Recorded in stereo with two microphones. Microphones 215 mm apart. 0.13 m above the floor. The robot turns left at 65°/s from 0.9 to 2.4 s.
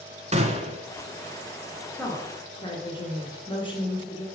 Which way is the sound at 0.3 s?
30° right (ahead or behind).